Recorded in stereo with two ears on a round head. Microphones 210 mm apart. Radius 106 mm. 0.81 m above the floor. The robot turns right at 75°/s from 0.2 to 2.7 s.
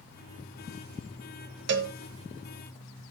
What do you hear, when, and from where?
1.7 s a cowbell: 50° right (ahead or behind), 1.2 m; by 1.9 s 65° right (ahead or behind), 1.2 m